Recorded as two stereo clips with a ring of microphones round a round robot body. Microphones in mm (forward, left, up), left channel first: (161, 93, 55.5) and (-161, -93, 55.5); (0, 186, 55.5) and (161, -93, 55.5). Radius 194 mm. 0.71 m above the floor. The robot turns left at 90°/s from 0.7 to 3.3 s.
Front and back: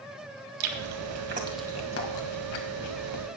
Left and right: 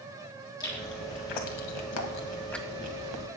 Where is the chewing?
160° right, 1.8 m; by 3.3 s 30° right, 1.8 m.